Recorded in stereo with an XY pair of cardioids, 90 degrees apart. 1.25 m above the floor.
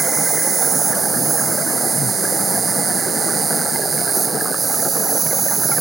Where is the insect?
45° right.